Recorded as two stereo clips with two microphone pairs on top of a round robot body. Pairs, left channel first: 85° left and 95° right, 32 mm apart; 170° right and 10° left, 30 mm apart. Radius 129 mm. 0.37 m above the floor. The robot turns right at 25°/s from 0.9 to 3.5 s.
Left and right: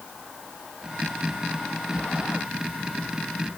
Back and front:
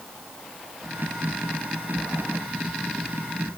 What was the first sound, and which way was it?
Only background noise.